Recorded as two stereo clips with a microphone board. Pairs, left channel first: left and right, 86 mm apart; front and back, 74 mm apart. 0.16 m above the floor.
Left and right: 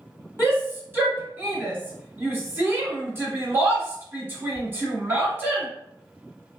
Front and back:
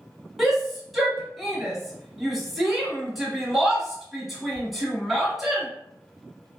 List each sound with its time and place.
0.4 s a shout: 95° right, 1.3 m